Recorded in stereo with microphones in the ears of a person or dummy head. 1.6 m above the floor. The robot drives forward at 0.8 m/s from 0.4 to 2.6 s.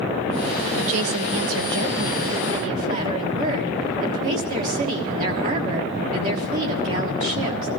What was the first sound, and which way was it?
A woman speaking, 65° right (ahead or behind).